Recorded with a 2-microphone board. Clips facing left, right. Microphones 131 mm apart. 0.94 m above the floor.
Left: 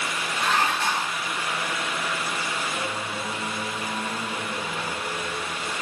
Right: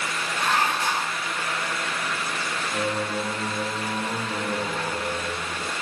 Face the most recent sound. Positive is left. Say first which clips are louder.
# right 4 dB
turn(degrees=-30)  # may be behind; listen again after turning